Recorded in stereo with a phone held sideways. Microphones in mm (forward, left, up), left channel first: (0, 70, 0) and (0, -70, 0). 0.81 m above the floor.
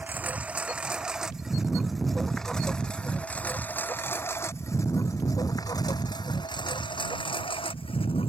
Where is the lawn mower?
10° right (ahead or behind); by 8.3 s 45° left (ahead or behind).